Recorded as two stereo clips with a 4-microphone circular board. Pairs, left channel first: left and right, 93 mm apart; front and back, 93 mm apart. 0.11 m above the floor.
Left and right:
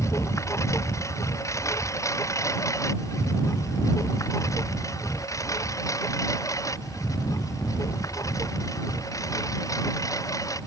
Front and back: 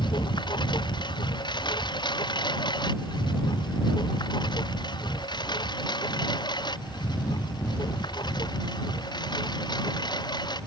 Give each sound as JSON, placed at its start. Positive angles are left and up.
{"t": 0.0, "sound": "a lawn mower", "azimuth_deg": 35}